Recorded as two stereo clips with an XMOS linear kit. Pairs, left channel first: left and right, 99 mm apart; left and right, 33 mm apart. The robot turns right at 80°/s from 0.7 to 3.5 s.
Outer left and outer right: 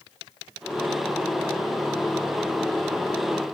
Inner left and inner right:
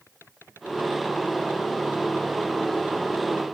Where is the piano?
I don't hear a piano.